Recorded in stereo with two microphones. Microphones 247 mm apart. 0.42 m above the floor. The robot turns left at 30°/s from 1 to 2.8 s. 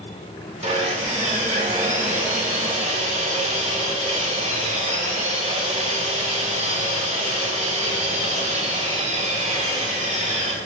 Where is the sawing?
25° right (ahead or behind), 0.9 m.